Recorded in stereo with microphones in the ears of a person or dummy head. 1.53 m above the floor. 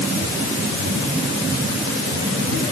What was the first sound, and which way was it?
Only background noise.